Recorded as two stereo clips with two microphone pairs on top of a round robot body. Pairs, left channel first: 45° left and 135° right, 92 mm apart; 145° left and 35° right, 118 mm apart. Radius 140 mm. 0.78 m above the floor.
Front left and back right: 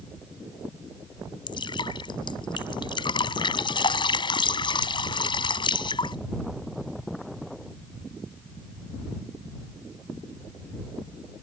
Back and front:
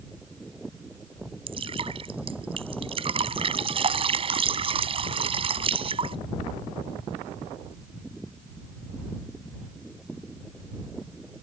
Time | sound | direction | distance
1.5 | dripping | 10° left | ?